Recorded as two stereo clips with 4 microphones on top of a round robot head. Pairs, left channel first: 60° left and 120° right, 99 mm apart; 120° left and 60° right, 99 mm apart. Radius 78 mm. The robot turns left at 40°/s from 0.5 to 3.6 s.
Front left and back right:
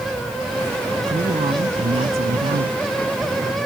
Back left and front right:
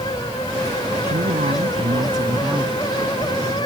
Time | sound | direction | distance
1.1 | a woman speaking | 70° right | ?